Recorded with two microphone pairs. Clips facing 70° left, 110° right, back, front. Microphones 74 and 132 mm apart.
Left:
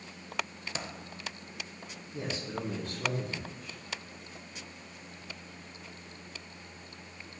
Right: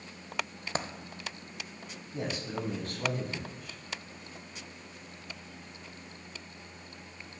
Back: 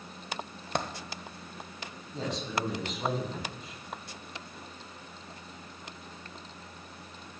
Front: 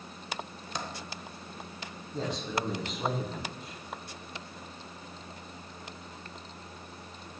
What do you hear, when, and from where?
0.8 s a dropped coin: 150° right, 0.7 m
2.1 s a man speaking: 90° right, 3 m